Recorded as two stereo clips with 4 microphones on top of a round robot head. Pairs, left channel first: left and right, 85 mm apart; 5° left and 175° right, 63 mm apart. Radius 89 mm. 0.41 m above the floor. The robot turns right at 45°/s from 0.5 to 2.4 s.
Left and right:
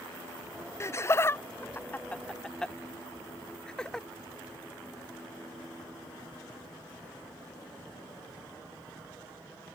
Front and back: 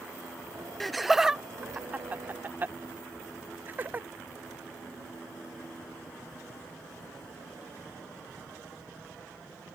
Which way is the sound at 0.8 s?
90° left.